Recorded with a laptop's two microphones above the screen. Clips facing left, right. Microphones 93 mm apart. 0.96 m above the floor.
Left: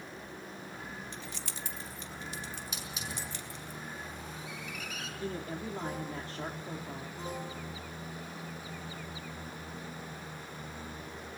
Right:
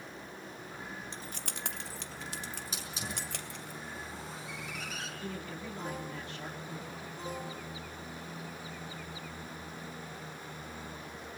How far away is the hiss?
About 5.5 m.